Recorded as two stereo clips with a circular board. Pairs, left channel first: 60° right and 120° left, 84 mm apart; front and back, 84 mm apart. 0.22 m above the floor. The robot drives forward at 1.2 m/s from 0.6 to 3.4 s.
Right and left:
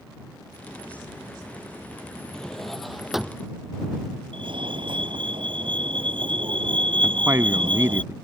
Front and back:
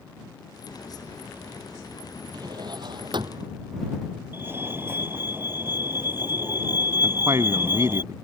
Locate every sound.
2.3 s a drawer: 140° right; by 3.5 s 155° right
4.3 s a fire alarm: 120° left
7.0 s a man speaking: 160° left